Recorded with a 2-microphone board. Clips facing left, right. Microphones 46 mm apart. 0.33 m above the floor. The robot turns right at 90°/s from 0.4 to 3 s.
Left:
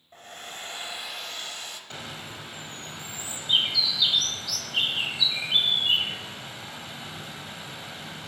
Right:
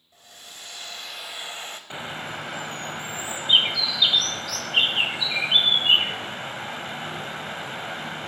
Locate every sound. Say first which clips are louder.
0.1 s a hair dryer: left 5 dB; 110° left, 0.6 m; by 1.8 s 120° right, 0.6 m
1.9 s a bird: right 9 dB; 155° right, 0.5 m; by 8.3 s 55° right, 0.5 m